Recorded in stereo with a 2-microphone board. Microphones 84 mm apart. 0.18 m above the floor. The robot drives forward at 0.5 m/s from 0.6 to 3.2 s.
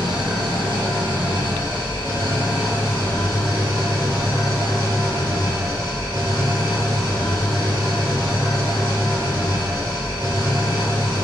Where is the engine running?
70° right (ahead or behind), 2.5 m; by 11.2 s 60° right (ahead or behind), 2.5 m.